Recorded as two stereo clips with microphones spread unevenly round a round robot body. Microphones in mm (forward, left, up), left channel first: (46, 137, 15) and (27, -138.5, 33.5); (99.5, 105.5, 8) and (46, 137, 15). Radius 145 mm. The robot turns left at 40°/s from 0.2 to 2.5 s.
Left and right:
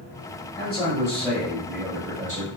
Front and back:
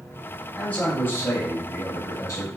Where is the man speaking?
35° left, 1.1 m; by 2.5 s 45° right, 1.1 m.